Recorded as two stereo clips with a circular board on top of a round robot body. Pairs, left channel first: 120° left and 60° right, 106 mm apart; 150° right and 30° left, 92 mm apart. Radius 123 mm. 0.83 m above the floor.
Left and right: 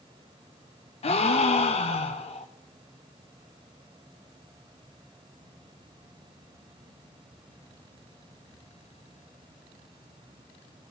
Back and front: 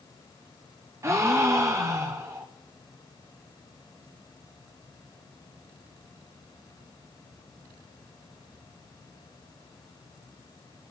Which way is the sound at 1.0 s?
90° left.